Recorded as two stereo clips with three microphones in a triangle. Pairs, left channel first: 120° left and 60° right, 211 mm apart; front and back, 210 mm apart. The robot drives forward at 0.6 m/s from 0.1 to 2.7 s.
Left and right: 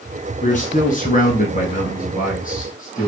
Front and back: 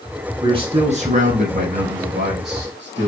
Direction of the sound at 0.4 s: 130° left.